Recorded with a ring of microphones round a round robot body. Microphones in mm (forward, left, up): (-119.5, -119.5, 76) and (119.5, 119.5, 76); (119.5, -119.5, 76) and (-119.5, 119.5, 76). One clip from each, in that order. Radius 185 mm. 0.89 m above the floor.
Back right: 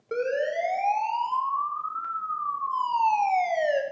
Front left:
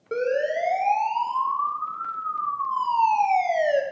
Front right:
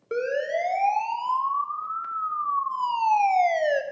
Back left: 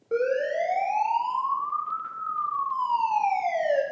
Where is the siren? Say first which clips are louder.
Front left 3 dB, back left 1 dB; 55° right, 3.5 m.